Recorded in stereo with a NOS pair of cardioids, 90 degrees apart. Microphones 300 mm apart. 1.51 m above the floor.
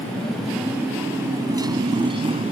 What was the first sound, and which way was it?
A motorcycle, 5° left.